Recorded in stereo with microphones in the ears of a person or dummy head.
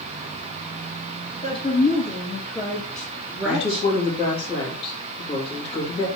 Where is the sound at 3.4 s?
35° left (ahead or behind), 2.5 m.